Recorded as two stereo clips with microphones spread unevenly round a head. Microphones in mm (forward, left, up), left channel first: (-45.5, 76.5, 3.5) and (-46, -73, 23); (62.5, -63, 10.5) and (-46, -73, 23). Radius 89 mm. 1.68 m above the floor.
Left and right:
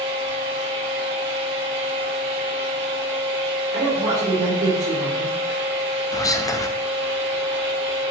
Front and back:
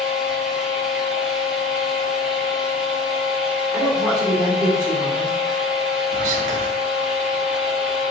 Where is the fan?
90° right, 1.3 m.